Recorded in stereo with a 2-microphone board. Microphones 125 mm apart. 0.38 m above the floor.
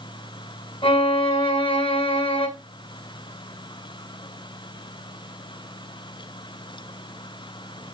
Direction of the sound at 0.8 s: 40° left (ahead or behind).